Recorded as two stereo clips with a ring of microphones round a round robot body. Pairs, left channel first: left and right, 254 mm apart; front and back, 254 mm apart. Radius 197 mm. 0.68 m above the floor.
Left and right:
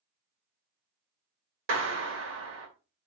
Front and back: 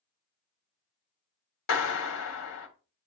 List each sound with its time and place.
1.7 s a clap: 40° right, 1.3 m